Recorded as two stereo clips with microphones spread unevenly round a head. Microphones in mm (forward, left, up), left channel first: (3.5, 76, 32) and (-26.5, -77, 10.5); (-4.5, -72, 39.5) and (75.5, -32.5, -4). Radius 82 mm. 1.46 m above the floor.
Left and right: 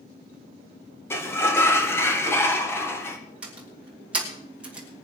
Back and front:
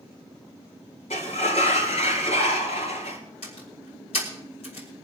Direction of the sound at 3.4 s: 175° left.